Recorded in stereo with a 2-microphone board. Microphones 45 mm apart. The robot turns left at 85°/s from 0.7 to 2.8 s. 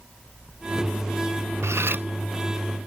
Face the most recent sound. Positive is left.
turn(degrees=165)